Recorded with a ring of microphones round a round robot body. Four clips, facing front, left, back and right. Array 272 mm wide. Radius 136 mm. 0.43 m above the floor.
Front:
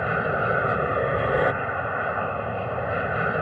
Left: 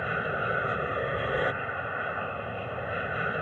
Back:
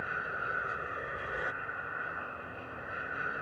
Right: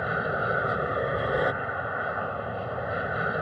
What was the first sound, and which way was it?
An aircraft, 15° right.